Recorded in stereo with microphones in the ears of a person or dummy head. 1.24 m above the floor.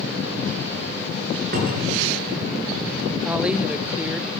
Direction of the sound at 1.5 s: 55° right (ahead or behind).